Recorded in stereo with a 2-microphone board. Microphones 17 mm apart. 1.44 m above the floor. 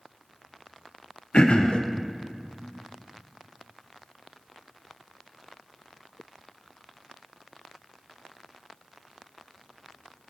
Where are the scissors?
No scissors in this recording.